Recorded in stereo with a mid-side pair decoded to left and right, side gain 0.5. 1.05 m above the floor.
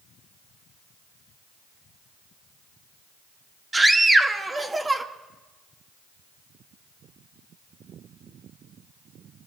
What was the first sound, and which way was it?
A scream, 20° right.